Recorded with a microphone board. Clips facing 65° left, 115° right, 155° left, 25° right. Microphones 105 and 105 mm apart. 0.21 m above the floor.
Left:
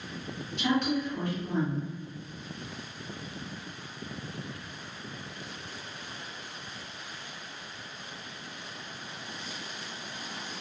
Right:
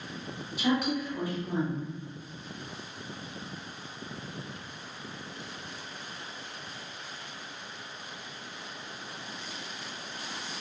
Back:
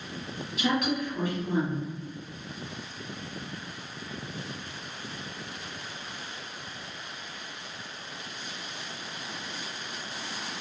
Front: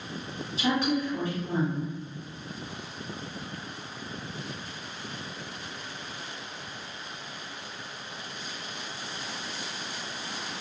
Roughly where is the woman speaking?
Ahead right.